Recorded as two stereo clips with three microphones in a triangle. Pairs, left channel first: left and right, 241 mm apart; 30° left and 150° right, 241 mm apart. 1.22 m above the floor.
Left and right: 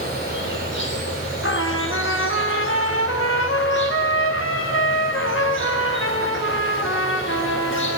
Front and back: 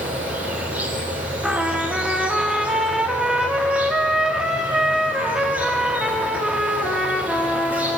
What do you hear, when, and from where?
0.0 s an insect: 125° left, 4.5 m
1.4 s a trumpet: 120° left, 2 m